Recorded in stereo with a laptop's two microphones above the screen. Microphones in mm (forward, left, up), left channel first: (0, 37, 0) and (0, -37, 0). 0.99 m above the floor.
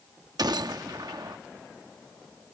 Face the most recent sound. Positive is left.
turn(degrees=-65)  # may be behind; listen again after turning